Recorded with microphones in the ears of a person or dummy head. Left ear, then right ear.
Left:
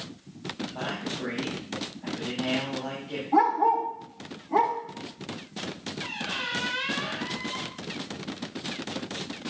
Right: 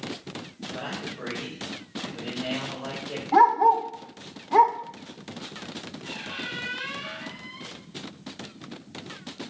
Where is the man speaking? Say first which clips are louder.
Even; 70° right (ahead or behind), 4 m.